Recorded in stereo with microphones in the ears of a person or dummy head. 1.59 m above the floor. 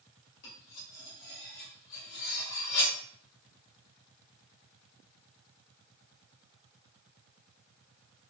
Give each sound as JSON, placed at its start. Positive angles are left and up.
{"t": 0.4, "sound": "cutlery clinking", "side_deg": 60, "distance_m": 1.9}